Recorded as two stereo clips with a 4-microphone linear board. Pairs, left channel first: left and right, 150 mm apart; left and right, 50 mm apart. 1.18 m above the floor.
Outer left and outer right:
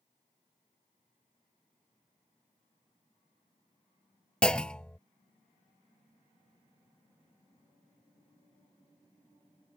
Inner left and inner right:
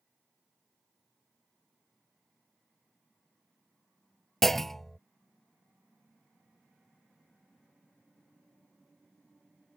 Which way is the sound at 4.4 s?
5° left (ahead or behind).